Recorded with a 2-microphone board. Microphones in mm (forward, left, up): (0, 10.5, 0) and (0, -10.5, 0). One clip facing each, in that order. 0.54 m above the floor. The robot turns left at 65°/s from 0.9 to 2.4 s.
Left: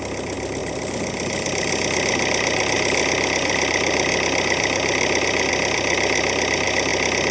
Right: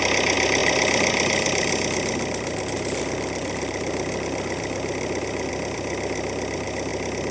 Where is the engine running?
125° right; by 7.3 s 140° left.